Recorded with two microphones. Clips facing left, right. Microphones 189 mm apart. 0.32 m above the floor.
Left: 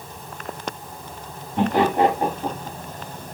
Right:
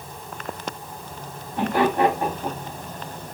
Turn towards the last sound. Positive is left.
turn(degrees=25)  # may be behind; listen again after turning